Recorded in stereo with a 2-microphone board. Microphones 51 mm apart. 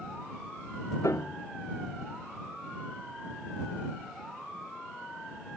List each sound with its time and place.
1.0 s a piano: 75° left (ahead or behind)